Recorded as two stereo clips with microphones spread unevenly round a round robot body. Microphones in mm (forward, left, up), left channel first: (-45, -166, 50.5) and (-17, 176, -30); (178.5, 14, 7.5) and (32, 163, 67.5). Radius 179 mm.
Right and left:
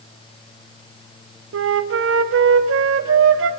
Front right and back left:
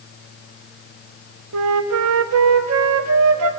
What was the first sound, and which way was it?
A flute, 135° left.